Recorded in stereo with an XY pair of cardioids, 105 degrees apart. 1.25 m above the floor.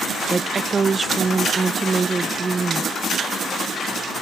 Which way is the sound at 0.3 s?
30° right.